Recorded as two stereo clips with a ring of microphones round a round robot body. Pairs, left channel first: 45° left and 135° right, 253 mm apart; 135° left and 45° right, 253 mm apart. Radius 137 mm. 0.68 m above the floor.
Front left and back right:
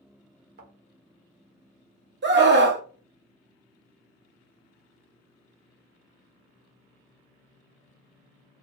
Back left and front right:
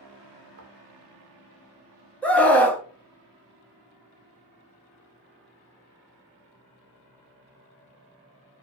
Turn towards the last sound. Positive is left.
turn(degrees=-145)